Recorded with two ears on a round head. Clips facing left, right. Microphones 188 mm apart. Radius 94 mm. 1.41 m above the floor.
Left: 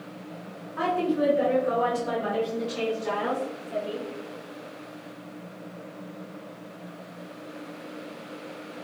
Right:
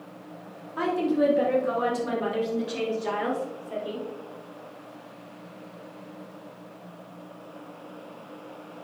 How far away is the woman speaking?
About 2.5 m.